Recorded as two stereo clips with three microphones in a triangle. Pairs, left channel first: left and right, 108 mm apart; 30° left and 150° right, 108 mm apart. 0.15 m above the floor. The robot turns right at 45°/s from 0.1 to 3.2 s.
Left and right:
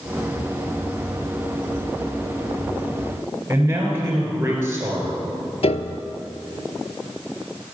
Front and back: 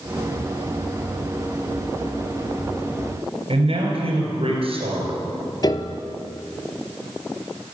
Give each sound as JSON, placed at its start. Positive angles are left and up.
{"t": 3.5, "sound": "a man speaking", "azimuth_deg": -155, "distance_m": 3.0}
{"t": 5.6, "sound": "a piano", "azimuth_deg": 75, "distance_m": 0.5}